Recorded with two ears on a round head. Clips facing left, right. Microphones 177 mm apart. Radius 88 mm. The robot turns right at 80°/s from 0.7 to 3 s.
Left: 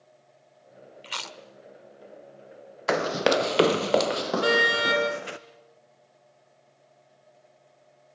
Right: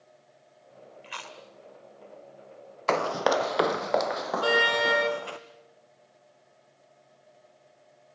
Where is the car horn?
25° left (ahead or behind), 8 m.